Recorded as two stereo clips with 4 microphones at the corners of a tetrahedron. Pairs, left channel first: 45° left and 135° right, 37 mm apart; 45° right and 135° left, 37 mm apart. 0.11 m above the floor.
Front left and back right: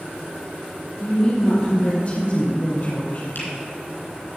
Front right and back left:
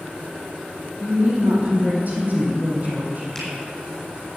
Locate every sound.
1.0 s a woman speaking: 95° left, 3 m
3.4 s a finger snap: 35° left, 3.5 m